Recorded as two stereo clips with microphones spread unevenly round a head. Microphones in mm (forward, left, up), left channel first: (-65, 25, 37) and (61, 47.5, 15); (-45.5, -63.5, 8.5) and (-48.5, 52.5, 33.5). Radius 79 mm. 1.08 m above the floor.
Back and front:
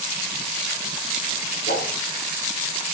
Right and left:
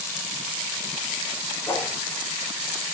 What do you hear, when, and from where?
1.7 s a whoosh: 160° right, 3.5 m